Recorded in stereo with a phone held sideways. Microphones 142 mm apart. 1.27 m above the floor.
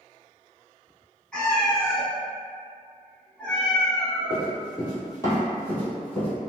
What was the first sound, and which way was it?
A cat meowing, 5° left (ahead or behind).